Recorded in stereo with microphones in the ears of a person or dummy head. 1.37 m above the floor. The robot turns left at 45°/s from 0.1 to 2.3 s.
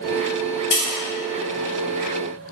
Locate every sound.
0.7 s tapping: 55° left (ahead or behind), 1.2 m